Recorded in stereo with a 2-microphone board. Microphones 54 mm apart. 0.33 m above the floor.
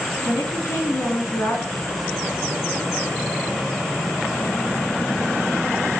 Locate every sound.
0.2 s a woman speaking: 70° left (ahead or behind), 3 m
1.7 s a zipper: 60° left (ahead or behind), 6.5 m